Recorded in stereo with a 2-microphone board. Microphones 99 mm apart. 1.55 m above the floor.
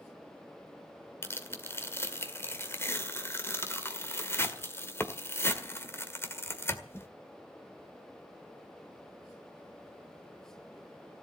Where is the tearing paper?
25° left (ahead or behind), 1.8 m.